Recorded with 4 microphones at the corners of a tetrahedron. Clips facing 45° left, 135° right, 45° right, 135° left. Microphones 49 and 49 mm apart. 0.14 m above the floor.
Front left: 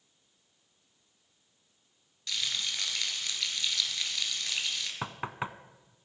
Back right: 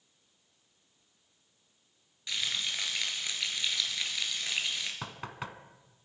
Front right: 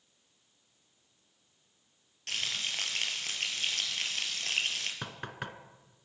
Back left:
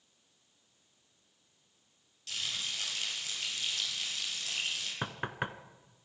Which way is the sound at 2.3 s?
65° right.